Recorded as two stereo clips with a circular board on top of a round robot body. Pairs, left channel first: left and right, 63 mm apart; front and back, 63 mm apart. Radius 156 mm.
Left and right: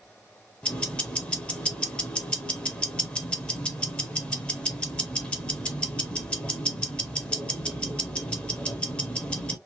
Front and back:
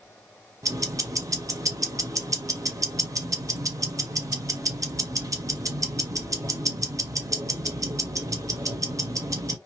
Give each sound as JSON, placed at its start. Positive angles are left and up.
{"t": 0.6, "sound": "ticking", "azimuth_deg": 160, "distance_m": 1.0}